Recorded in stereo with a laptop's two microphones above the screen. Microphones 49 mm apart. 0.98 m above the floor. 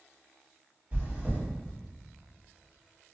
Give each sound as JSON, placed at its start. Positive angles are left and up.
{"t": 0.9, "sound": "chewing", "side_deg": -35, "distance_m": 1.3}